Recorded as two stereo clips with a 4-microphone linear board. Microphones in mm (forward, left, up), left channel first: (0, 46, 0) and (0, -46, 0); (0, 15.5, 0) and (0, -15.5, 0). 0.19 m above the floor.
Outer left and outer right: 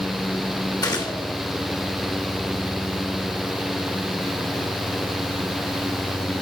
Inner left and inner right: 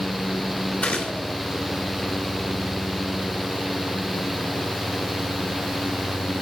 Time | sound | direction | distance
0.8 | a gunshot | 45° left (ahead or behind) | 2.5 m